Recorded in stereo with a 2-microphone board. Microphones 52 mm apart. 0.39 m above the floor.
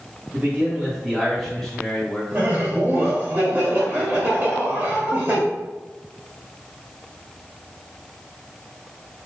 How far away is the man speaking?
About 1.6 m.